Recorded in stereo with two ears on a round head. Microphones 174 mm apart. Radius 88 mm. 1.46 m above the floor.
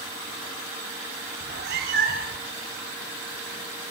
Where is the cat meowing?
60° right (ahead or behind), 2.5 m; by 2.5 s 50° right (ahead or behind), 3 m.